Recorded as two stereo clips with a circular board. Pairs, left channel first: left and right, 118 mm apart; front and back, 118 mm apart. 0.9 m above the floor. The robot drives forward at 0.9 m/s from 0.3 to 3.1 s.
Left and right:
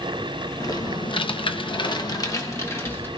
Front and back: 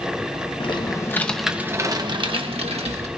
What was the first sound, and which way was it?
Typing on a keyboard, 35° left.